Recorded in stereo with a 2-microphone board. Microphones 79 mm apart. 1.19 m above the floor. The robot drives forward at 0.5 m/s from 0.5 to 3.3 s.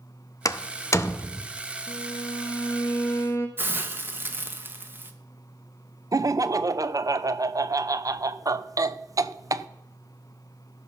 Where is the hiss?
25° right (ahead or behind), 0.9 m.